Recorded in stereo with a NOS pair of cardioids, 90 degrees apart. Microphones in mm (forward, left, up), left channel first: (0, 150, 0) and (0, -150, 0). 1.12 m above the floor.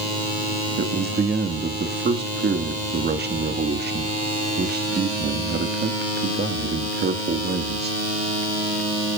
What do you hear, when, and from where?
0.8 s a man speaking: 35° right, 1.8 m